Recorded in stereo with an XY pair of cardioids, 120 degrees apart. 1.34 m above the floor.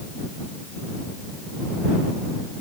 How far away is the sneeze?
No sneeze in this recording.